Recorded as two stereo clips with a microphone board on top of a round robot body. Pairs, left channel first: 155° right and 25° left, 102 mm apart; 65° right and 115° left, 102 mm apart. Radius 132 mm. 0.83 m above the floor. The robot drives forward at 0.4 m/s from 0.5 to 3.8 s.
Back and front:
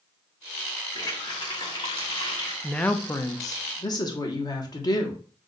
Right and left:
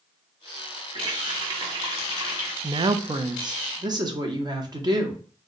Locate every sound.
0.9 s a running tap: 150° left, 1.0 m; by 2.5 s 165° left, 1.6 m
2.6 s a woman speaking: 120° left, 0.5 m; by 5.2 s 155° left, 0.8 m